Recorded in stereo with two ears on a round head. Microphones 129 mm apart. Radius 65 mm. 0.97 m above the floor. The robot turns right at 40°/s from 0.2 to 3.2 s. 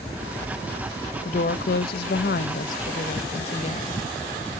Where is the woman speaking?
55° left, 0.6 m; by 4.0 s 130° left, 0.6 m.